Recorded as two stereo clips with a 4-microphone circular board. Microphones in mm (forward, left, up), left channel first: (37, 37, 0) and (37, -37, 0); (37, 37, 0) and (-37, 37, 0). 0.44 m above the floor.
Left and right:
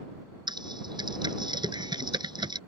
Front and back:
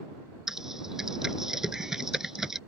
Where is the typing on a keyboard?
95° right.